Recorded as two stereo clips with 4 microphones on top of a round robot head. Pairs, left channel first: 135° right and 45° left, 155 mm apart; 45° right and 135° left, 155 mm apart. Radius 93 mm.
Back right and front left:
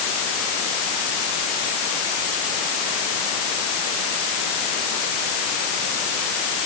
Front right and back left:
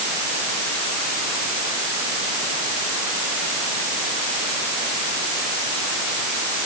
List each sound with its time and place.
Only background noise.